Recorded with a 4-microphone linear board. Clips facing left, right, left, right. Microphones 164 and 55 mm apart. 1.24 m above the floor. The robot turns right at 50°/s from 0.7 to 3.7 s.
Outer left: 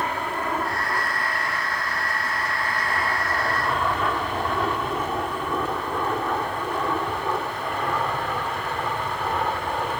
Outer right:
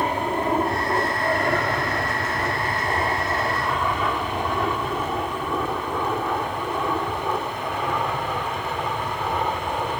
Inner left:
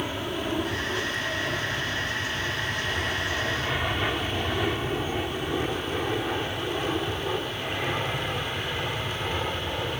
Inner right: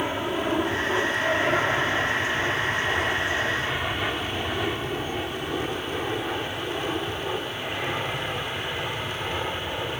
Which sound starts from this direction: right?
An aircraft, at 0.0 s.